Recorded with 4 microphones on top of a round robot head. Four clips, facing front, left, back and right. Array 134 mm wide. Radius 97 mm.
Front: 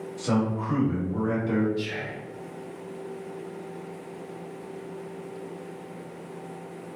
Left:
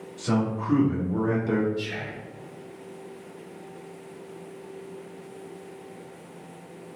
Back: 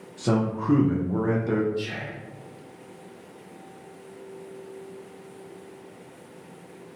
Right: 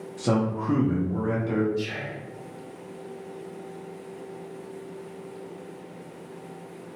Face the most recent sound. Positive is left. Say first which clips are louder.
# right 2 dB, even
turn(degrees=-125)